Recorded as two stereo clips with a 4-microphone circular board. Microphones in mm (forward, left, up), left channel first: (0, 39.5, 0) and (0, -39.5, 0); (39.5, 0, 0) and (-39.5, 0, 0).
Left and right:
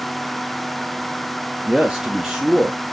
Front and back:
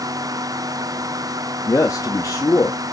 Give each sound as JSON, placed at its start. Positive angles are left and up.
{"t": 1.7, "sound": "a man speaking", "azimuth_deg": -15, "distance_m": 0.8}